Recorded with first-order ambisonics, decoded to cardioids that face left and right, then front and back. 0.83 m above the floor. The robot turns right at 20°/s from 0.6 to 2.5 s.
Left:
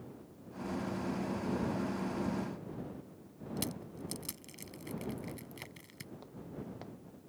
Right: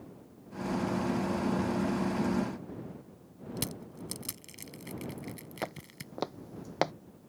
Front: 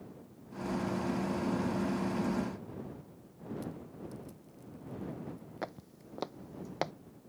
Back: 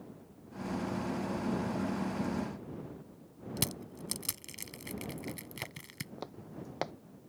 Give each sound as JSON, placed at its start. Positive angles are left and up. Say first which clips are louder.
{"t": 3.6, "sound": "crushing", "louder": "right 2 dB, back 9 dB", "azimuth_deg": -170}
{"t": 5.6, "sound": "footsteps", "louder": "right 10 dB, front 2 dB", "azimuth_deg": -60}